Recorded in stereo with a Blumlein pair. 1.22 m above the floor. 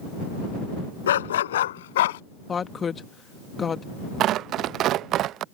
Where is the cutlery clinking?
No cutlery clinking in this recording.